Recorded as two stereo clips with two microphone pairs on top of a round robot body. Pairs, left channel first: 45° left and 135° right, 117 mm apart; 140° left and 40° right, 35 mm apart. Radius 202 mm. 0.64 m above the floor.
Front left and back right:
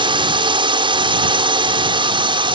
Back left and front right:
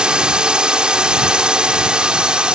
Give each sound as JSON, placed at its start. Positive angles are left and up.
{"t": 0.0, "sound": "a drone", "azimuth_deg": -100}